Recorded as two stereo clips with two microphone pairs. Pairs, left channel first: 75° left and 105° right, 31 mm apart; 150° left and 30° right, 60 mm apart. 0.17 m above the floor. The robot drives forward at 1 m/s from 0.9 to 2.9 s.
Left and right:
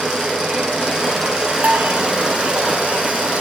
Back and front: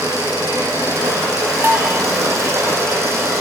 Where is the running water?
40° right, 4.5 m; by 3.4 s 60° right, 3.5 m.